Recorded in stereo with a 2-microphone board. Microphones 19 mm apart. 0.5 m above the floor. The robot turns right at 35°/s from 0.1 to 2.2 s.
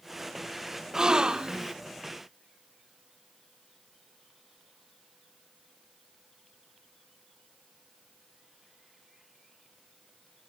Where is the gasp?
35° right (ahead or behind), 0.6 m; by 1.8 s 45° right (ahead or behind), 0.6 m.